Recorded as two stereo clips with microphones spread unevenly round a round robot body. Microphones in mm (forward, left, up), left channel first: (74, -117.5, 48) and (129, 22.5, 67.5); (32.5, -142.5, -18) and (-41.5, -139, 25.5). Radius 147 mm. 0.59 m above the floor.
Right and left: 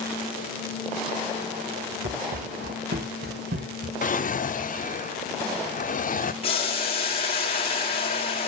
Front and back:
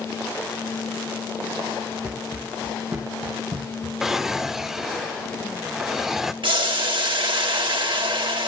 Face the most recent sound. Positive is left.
turn(degrees=-165)